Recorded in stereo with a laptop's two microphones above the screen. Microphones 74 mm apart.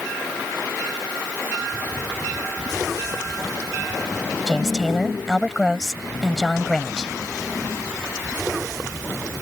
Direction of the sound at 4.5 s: 5° left (ahead or behind).